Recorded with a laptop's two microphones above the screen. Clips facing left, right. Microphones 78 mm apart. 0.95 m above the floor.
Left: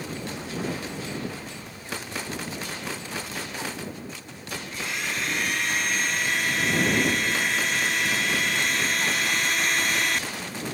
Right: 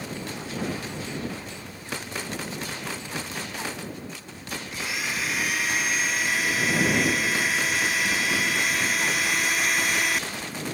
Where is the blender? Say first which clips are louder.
Even; 5° right (ahead or behind).